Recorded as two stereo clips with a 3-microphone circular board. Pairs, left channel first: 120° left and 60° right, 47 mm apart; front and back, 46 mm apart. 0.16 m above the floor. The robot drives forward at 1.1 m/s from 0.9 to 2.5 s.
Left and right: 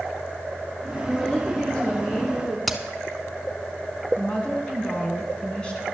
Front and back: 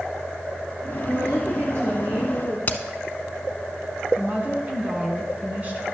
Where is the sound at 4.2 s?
170° left, 1.3 m.